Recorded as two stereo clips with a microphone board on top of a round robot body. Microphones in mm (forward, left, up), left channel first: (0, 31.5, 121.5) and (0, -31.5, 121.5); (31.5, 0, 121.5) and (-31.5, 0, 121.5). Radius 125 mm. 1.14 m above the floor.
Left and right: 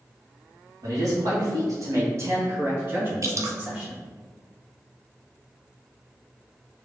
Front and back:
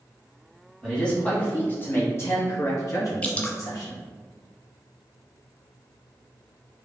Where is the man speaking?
80° right, 1.8 m; by 4.0 s 15° right, 2.5 m.